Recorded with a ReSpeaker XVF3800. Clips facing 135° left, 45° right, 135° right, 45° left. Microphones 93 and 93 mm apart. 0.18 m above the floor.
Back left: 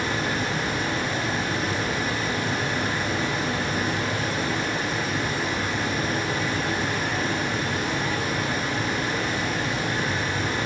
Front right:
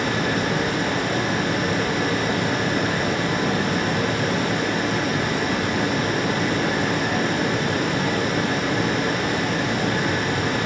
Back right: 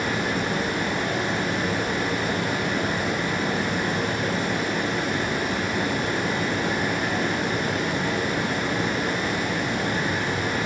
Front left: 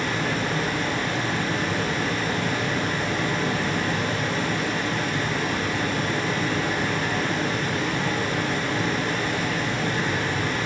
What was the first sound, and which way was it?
Running water, 60° right.